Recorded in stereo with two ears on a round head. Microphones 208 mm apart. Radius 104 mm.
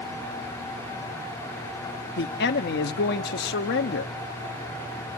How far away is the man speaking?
About 0.9 m.